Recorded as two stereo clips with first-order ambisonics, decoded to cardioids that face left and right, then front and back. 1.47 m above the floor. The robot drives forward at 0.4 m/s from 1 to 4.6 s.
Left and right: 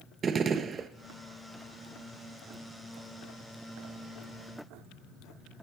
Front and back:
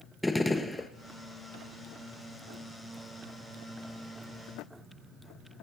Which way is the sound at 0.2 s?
75° right.